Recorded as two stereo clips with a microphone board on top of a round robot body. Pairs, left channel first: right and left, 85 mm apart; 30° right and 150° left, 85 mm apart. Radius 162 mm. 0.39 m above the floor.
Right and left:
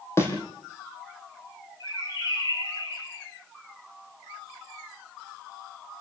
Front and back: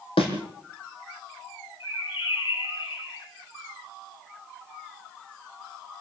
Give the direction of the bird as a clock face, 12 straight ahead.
2 o'clock.